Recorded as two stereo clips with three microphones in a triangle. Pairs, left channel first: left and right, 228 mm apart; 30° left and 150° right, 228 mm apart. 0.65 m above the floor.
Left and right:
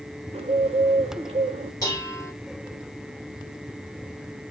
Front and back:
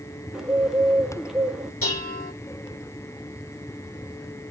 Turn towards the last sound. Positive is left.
turn(degrees=15)